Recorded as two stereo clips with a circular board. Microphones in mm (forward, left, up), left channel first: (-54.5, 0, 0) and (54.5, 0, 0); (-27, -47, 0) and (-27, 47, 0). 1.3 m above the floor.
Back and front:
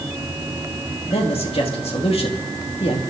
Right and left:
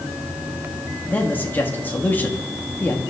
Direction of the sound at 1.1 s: 160° right.